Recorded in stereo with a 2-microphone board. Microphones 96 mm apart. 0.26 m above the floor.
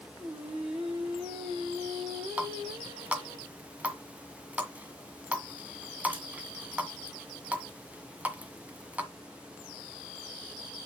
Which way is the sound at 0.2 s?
90° right.